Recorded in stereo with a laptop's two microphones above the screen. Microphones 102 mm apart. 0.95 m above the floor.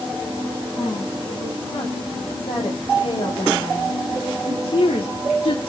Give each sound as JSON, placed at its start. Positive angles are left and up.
{"t": 0.8, "sound": "a woman speaking", "side_deg": 55, "distance_m": 6.0}